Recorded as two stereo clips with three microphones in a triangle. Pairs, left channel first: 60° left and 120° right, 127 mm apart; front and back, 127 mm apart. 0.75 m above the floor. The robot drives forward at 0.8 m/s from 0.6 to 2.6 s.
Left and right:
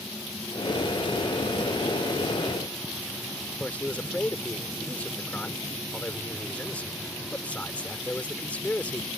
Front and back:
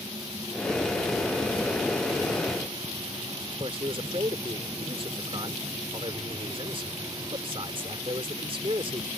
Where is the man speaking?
140° left.